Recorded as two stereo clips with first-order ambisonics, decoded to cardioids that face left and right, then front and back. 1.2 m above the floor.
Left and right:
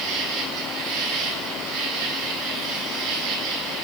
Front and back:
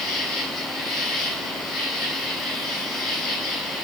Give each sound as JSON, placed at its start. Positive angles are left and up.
{"t": 0.0, "sound": "an insect", "azimuth_deg": -55, "distance_m": 7.0}